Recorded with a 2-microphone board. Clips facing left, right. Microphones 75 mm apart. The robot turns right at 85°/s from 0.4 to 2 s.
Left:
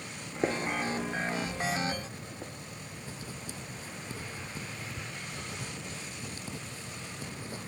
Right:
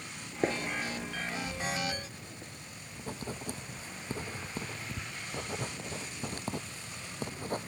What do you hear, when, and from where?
0.4 s a gunshot: centre (ahead or behind), 0.8 m; by 2.5 s 35° left (ahead or behind), 0.8 m
3.0 s writing: 55° right (ahead or behind), 0.8 m